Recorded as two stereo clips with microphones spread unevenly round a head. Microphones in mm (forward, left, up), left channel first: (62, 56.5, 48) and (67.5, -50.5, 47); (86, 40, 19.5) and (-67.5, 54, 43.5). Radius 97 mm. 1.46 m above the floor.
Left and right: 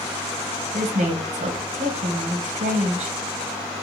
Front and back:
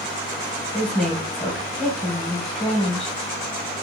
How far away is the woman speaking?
About 0.8 m.